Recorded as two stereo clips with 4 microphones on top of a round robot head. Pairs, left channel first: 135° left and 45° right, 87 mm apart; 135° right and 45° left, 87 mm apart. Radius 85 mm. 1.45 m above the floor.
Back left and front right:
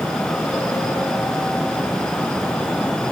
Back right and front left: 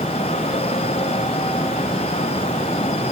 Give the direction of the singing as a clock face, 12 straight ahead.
No singing in this recording.